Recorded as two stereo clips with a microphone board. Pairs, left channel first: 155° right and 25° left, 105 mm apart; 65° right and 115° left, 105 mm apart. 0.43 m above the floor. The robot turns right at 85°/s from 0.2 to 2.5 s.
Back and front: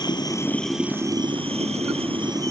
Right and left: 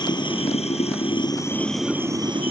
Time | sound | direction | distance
0.0 | running water | 110° right | ?